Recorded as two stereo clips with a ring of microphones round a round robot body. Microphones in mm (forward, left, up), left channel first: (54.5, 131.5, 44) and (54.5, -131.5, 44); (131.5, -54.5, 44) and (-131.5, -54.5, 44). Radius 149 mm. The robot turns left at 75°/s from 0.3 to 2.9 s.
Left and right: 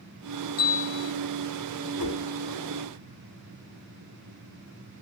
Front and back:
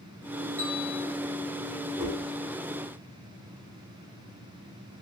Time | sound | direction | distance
0.6 | a bell | 85° left | 5 m
2.0 | a whoosh | 110° left | 5.5 m